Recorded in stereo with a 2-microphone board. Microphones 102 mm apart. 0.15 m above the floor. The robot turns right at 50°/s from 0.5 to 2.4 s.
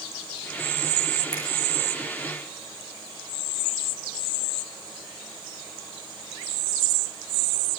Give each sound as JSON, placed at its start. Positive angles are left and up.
{"t": 1.3, "sound": "a finger snap", "side_deg": 35, "distance_m": 9.0}